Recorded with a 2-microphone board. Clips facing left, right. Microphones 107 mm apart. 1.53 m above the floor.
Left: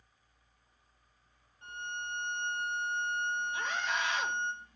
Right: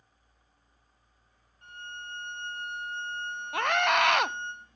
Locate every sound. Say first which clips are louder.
1.6 s a violin: left 3 dB; 25° left (ahead or behind), 4 m
3.5 s a scream: right 9 dB; 70° right (ahead or behind), 0.5 m